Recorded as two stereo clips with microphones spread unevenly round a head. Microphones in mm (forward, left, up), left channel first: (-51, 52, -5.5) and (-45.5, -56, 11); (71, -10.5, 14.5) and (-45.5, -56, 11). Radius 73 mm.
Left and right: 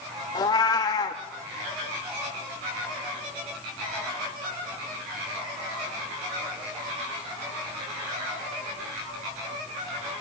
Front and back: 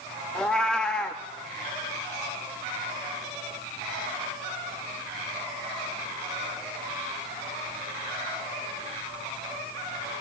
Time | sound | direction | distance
0.3 | a cat meowing | 95° left | 0.7 m